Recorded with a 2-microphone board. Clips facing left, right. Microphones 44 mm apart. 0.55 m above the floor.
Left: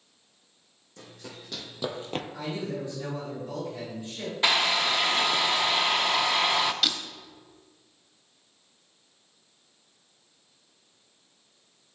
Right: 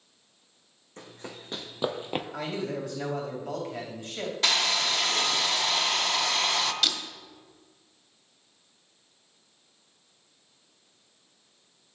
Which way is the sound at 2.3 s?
70° right (ahead or behind).